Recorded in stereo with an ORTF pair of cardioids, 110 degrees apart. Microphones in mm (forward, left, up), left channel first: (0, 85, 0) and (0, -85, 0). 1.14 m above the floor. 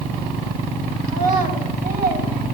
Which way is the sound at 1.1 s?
55° right.